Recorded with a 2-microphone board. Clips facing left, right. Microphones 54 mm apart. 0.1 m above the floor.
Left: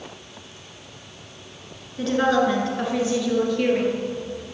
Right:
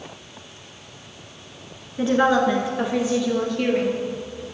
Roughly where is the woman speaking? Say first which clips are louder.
Right 2 dB; centre.